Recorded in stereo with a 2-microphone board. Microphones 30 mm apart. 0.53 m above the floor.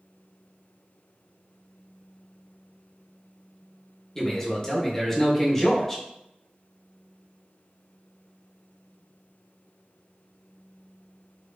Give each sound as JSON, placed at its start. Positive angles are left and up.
{"t": 4.2, "sound": "a man speaking", "side_deg": 20, "distance_m": 0.7}